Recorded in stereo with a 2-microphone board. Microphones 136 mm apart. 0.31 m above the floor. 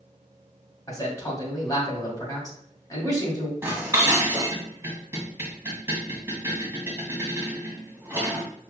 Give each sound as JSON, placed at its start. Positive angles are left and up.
{"t": 0.9, "sound": "a man speaking", "side_deg": 25, "distance_m": 1.9}
{"t": 3.6, "sound": "dishes clattering", "side_deg": -15, "distance_m": 1.3}